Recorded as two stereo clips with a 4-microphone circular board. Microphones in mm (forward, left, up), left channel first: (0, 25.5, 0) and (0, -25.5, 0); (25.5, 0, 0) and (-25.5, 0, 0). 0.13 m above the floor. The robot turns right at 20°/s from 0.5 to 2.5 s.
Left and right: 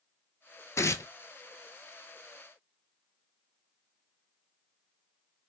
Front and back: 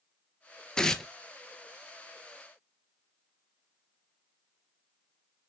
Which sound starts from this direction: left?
Tearing paper, at 0.8 s.